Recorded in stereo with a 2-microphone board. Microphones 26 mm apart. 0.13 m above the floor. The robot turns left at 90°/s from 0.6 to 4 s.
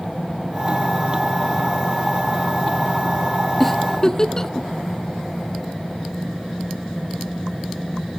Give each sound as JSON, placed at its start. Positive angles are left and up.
{"t": 3.6, "sound": "a giggle", "side_deg": 5, "distance_m": 0.5}